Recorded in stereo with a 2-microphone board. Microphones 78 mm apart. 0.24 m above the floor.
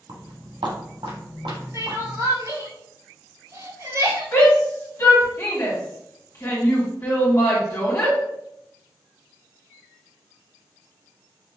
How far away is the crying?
About 1.0 m.